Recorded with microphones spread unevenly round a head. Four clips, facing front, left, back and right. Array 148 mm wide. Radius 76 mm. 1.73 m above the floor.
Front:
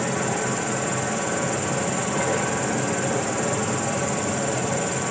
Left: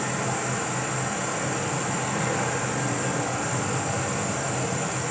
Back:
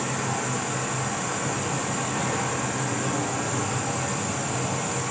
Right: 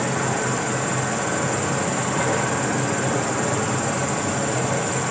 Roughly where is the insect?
Ahead right.